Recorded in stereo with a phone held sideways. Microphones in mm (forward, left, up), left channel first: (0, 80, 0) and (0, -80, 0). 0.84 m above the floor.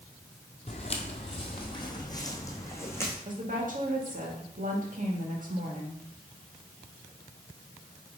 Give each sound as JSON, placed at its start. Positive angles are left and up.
{"t": 0.7, "sound": "footsteps", "side_deg": 40, "distance_m": 1.1}
{"t": 3.2, "sound": "a woman speaking", "side_deg": -55, "distance_m": 1.7}